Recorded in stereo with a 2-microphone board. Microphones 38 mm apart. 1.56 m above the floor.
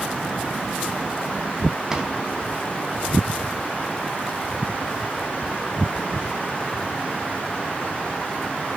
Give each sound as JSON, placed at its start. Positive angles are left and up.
{"t": 1.9, "sound": "a drawer", "side_deg": -15, "distance_m": 3.0}